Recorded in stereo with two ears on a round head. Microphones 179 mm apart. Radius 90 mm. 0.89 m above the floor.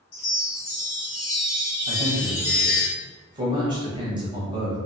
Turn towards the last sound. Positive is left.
turn(degrees=-20)  # may be behind; listen again after turning